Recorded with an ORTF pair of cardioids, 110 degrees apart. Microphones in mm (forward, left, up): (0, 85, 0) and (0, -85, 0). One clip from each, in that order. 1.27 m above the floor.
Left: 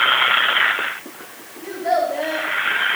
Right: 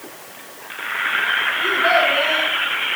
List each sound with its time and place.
1.6 s a child speaking: 40° right, 10 m